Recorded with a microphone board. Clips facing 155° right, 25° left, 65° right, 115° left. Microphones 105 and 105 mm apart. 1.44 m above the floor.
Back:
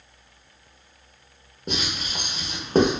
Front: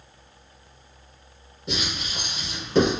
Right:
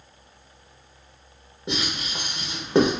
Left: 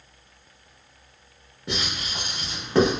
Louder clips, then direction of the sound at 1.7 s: Back 1 dB, right 2 dB; 130° right.